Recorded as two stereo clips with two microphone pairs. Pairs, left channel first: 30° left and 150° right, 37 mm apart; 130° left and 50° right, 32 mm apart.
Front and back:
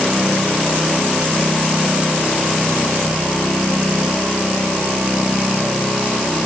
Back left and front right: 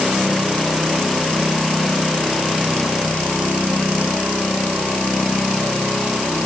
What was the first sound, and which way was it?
Only background noise.